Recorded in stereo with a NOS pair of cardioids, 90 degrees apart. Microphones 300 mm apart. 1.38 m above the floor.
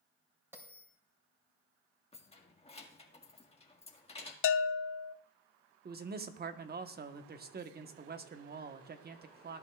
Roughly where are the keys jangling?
Ahead.